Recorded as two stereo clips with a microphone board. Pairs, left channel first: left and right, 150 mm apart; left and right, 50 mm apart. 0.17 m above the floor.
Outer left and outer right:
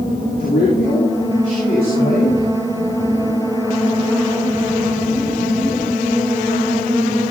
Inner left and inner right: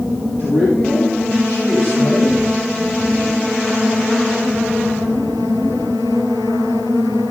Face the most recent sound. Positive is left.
turn(degrees=70)  # may be behind; listen again after turning